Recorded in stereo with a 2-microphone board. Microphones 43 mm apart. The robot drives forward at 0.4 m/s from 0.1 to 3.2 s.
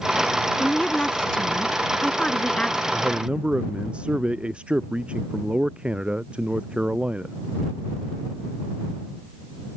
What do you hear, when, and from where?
0.6 s a woman speaking: 25° left (ahead or behind); by 2.8 s 15° left (ahead or behind)
2.9 s a man speaking: 25° right (ahead or behind)